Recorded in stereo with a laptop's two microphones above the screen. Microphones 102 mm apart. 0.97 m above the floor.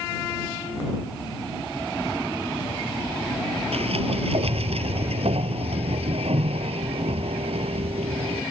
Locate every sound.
3.7 s a sliding door: 75° right (ahead or behind)